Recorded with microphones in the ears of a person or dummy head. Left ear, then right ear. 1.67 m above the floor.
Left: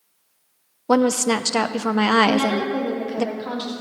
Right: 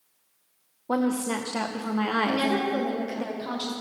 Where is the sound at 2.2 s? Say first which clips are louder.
Left 5 dB; 5° left (ahead or behind), 3.5 m.